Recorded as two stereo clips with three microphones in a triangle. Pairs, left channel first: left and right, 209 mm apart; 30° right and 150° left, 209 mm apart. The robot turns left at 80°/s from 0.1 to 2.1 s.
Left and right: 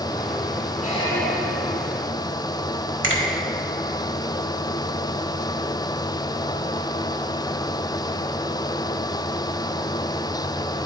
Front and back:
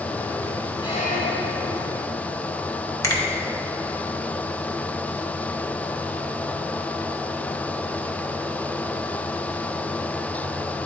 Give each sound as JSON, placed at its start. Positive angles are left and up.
{"t": 0.8, "sound": "a squeak", "azimuth_deg": 40, "distance_m": 0.9}
{"t": 3.0, "sound": "a finger snap", "azimuth_deg": -105, "distance_m": 1.1}